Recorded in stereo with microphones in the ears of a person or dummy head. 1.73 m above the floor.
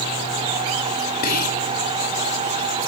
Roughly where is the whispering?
Left.